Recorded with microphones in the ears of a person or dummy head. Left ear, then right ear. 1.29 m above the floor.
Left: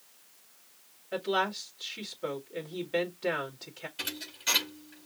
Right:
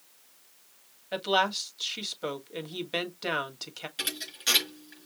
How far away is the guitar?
No guitar in this recording.